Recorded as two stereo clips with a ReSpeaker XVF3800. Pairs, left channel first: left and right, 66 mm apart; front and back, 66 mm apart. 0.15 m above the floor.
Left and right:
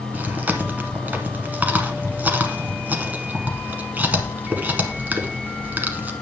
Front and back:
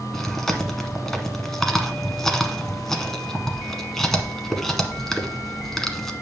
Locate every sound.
0.1 s chewing: 75° right, 1.1 m